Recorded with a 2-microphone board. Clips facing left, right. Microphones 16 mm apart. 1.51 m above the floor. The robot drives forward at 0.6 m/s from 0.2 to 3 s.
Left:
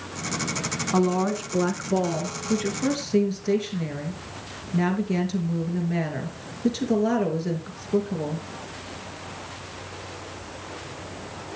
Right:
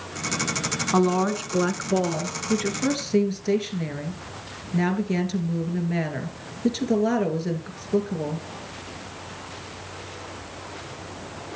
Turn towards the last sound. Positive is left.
turn(degrees=-10)  # may be behind; listen again after turning